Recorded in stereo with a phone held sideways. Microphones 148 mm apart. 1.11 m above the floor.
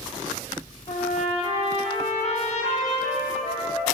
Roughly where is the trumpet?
Left.